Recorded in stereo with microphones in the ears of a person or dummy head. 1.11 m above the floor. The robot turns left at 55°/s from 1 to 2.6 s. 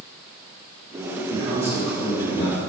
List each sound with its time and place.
1.3 s a man speaking: 145° right, 1.8 m; by 2.6 s 140° left, 1.8 m